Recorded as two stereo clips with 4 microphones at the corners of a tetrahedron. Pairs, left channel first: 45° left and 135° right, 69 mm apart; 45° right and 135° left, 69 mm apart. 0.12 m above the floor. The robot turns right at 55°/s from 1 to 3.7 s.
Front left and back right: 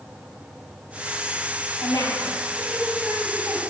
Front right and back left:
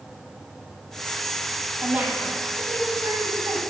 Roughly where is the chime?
I don't hear a chime.